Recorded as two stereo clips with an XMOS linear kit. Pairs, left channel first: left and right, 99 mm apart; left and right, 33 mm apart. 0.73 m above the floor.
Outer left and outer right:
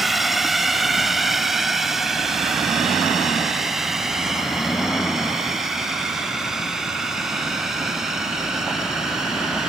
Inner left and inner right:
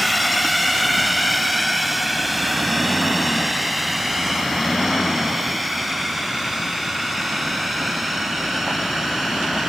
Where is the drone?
Centre (ahead or behind); by 9.7 s 5° right (ahead or behind).